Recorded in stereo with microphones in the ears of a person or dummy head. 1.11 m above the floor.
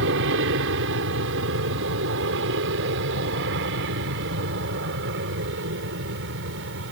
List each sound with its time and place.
0.0 s an aircraft: 60° right (ahead or behind); by 6.9 s 65° right (ahead or behind)